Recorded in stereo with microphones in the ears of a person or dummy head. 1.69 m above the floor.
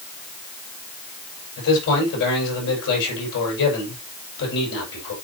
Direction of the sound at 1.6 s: 65° left (ahead or behind).